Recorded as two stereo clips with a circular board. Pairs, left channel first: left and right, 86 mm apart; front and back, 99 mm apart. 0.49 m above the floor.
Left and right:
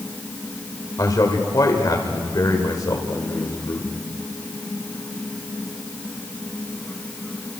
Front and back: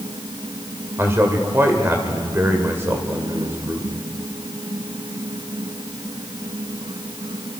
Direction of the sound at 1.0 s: 120° left.